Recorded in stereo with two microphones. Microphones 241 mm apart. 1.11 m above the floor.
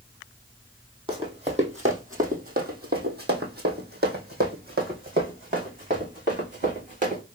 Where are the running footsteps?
20° right (ahead or behind), 1.6 m; by 7.2 s 30° right (ahead or behind), 3.5 m.